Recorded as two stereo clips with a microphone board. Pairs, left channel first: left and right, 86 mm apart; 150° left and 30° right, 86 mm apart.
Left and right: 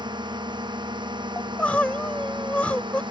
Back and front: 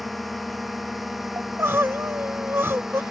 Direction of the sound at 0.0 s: 120° right.